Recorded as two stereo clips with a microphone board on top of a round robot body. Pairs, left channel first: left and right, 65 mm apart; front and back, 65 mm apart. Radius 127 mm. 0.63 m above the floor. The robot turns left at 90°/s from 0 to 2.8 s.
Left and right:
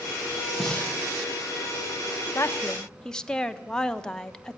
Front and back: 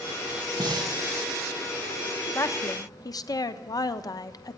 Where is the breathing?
Straight behind, 1.8 m; by 0.9 s 145° left, 1.8 m.